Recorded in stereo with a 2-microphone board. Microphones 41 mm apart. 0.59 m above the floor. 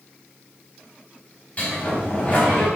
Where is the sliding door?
35° left (ahead or behind), 5 m.